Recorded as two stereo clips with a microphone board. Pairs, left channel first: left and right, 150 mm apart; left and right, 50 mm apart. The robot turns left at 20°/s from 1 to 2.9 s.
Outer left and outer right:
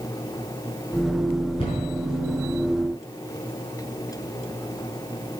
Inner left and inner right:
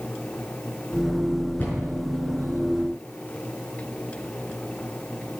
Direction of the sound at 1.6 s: 35° left (ahead or behind).